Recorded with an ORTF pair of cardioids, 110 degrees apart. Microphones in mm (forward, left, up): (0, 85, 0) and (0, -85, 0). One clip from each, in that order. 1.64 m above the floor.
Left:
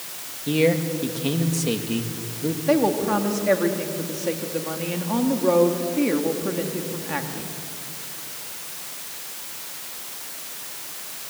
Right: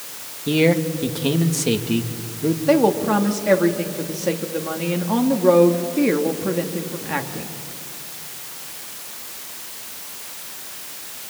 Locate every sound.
0.5 s a man speaking: 20° right, 2 m
2.7 s a woman speaking: 20° right, 2.5 m